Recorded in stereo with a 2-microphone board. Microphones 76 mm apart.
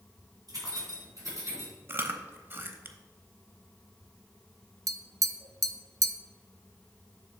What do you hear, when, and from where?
0.5 s keys jangling: 60° right (ahead or behind), 2.5 m; by 1.7 s 45° right (ahead or behind), 3.5 m
1.9 s chewing: 30° right (ahead or behind), 0.6 m
4.9 s tapping: 50° right (ahead or behind), 0.5 m